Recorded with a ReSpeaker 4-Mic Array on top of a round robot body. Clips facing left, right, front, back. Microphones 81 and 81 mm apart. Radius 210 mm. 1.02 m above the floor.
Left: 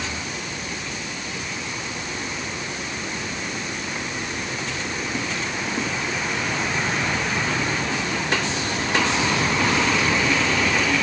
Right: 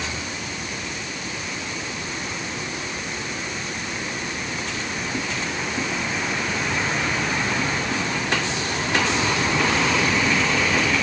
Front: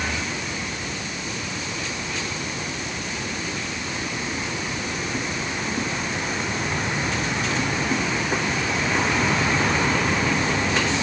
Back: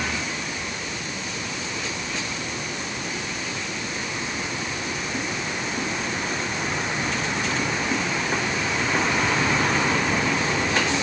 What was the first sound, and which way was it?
Only background noise.